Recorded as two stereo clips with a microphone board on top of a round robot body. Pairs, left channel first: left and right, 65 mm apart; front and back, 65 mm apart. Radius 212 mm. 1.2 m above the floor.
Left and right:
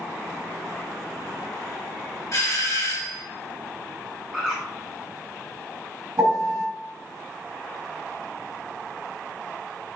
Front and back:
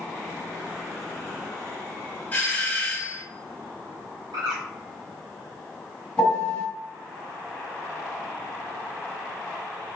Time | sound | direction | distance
2.3 | a doorbell | 60° left | 1.0 m
4.3 | a bird | 175° right | 0.6 m
6.2 | a piano | 55° right | 1.6 m